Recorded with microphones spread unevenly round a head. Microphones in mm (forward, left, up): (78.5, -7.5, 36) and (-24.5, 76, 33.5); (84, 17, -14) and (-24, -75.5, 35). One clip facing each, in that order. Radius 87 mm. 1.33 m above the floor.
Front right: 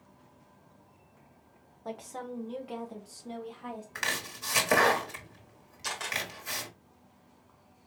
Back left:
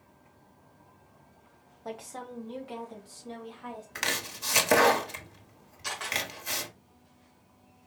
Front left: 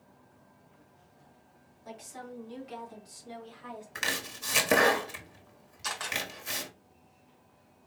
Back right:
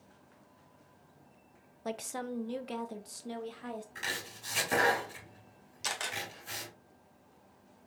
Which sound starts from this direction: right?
A camera shutter, at 5.8 s.